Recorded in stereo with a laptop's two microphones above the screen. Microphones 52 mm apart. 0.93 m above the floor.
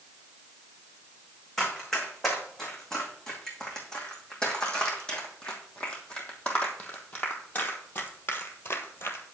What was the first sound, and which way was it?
Running footsteps, 5° left (ahead or behind).